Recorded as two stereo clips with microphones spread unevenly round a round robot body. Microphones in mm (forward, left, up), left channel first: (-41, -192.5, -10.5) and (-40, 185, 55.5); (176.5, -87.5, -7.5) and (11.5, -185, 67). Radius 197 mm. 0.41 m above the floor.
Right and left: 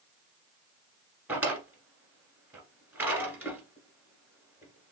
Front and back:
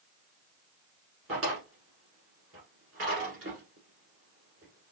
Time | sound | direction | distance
1.3 | a drawer | 175° left | 1.3 m